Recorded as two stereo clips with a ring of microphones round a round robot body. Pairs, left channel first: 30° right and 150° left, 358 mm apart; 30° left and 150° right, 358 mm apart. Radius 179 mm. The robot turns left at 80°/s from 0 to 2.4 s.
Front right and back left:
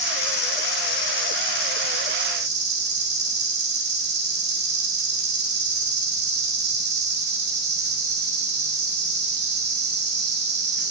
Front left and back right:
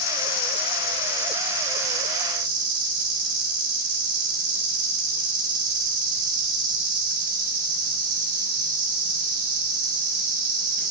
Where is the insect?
45° left, 6 m; by 10.9 s 150° right, 6 m.